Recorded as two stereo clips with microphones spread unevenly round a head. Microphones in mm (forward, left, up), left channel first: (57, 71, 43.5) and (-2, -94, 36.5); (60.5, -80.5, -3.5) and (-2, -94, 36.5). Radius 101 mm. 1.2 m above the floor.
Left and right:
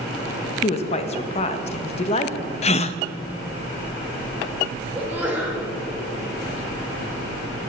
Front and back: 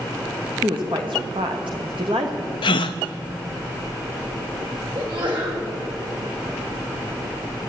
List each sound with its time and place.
0.6 s a woman speaking: 130° left, 1.2 m
2.6 s a gasp: 35° left, 0.5 m
5.0 s a sneeze: 170° left, 4 m